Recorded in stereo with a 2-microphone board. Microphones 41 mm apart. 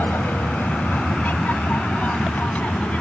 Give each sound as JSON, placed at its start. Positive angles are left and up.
{"t": 0.0, "sound": "an aircraft", "side_deg": 55}